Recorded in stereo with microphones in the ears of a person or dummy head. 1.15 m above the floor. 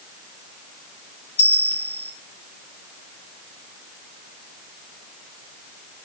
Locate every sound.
1.4 s a bell: 80° left, 1.7 m